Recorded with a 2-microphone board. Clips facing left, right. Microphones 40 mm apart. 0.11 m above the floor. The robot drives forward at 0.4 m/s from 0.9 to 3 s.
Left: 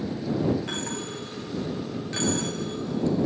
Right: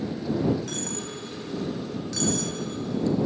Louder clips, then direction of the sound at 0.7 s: Left 1 dB; 30° left (ahead or behind).